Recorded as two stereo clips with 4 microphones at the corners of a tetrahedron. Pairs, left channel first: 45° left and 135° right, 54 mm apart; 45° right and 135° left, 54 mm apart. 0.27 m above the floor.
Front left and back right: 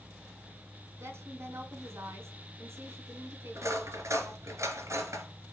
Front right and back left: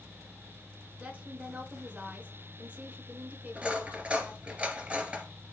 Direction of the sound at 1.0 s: 165° right.